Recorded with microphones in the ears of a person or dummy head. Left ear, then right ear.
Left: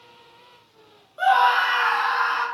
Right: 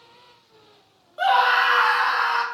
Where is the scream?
15° right (ahead or behind), 0.6 m; by 2.4 s 55° right (ahead or behind), 1.1 m.